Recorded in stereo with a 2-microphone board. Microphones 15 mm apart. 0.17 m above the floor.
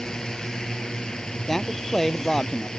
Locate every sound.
0.0 s a drone: 55° left (ahead or behind)
1.5 s a man speaking: 20° left (ahead or behind)